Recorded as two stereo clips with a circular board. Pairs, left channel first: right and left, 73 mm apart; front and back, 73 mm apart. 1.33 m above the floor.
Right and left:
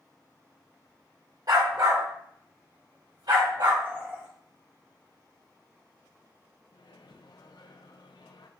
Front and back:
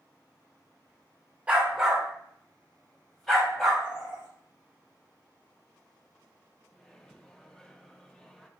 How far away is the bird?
About 2 m.